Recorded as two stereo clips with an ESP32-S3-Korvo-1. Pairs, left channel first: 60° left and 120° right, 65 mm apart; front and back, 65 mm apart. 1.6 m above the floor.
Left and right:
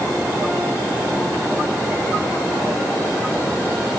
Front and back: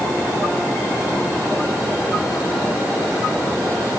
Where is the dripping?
I don't hear dripping.